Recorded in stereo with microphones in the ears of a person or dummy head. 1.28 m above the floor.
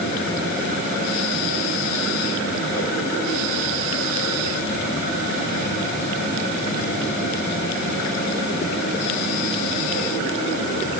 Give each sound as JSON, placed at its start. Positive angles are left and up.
{"t": 0.0, "sound": "a machine running", "side_deg": 65, "distance_m": 9.5}